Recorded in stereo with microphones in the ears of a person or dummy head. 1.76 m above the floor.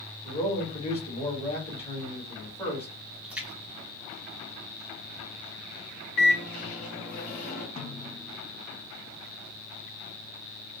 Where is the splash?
10° right (ahead or behind), 1.2 m.